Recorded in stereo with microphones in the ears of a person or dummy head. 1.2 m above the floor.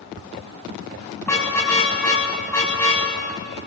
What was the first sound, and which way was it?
A car horn, 15° left (ahead or behind).